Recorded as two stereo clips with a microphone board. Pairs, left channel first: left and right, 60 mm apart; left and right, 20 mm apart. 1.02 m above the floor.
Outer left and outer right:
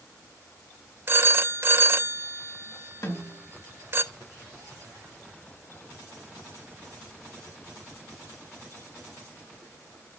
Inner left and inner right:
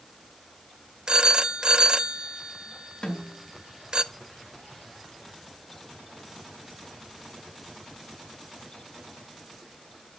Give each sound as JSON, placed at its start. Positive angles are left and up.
{"t": 1.1, "sound": "a phone ringing", "side_deg": -40, "distance_m": 0.5}
{"t": 3.0, "sound": "a snare drum", "side_deg": 80, "distance_m": 2.0}